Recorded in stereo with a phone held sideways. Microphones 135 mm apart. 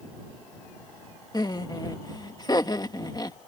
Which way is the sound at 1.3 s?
30° left (ahead or behind).